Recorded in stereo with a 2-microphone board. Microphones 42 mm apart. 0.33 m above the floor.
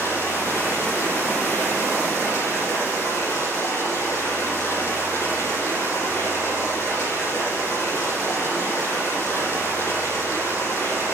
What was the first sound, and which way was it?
Running water, 75° left (ahead or behind).